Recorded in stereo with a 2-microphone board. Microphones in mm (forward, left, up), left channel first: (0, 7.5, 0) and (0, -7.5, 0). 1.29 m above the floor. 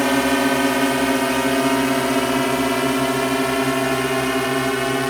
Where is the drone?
5° right (ahead or behind); by 5.1 s 30° right (ahead or behind).